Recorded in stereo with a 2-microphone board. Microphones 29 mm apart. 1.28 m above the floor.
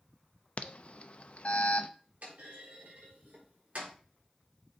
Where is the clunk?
65° right (ahead or behind), 4 m.